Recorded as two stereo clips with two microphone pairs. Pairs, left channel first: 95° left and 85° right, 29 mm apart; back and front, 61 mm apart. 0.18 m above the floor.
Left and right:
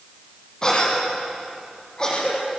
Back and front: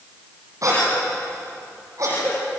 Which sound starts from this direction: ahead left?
A cough, at 0.6 s.